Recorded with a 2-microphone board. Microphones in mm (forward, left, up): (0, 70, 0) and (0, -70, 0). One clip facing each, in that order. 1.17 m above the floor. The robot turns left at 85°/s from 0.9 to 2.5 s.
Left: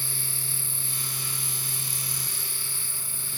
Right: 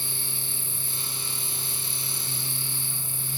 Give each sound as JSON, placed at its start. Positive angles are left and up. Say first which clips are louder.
{"t": 0.0, "sound": "an insect", "louder": "right 1 dB", "azimuth_deg": 115}